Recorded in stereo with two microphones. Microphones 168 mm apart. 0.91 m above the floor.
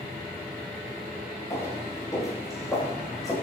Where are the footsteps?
20° left (ahead or behind), 6 m.